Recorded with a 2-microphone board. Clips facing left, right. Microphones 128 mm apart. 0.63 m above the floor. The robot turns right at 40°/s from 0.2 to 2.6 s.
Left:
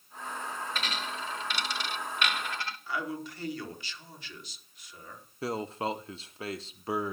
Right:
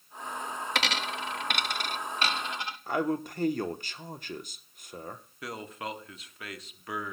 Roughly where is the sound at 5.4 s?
Left.